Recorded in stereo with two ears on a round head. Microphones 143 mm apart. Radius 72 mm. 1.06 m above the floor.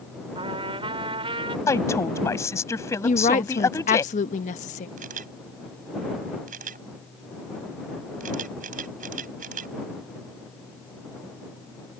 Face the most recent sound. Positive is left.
turn(degrees=-50)  # may be behind; listen again after turning